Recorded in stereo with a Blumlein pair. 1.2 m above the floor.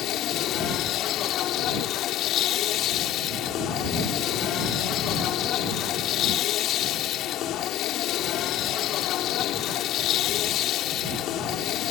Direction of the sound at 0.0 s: 35° left.